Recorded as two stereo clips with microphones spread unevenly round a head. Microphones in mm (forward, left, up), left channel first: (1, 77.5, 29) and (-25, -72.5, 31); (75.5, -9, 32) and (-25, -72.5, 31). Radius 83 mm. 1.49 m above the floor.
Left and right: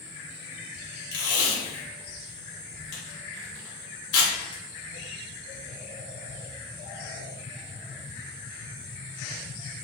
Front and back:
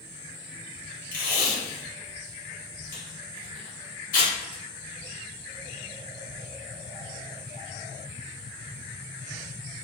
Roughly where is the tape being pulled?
Ahead left.